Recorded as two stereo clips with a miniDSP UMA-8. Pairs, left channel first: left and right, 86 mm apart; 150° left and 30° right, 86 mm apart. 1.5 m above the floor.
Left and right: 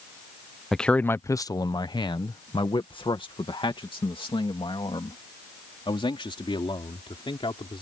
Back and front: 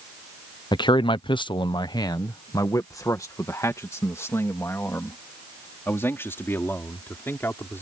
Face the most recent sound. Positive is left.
turn(degrees=85)